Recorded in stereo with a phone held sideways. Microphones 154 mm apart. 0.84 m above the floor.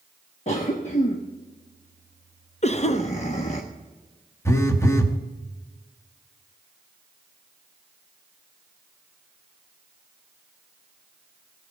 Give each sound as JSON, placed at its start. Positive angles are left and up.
{"t": 0.5, "sound": "a cough", "side_deg": 45, "distance_m": 1.1}
{"t": 2.6, "sound": "a cough", "side_deg": 45, "distance_m": 0.7}
{"t": 4.5, "sound": "a phone buzzing", "side_deg": 20, "distance_m": 1.0}